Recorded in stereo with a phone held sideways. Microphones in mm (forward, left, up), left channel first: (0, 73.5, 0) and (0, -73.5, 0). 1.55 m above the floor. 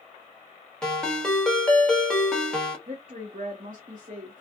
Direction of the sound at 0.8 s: 5° left (ahead or behind).